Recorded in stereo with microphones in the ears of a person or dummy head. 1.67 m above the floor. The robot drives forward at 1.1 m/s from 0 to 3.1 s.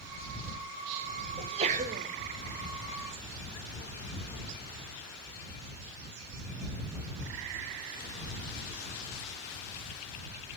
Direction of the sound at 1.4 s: 30° right (ahead or behind).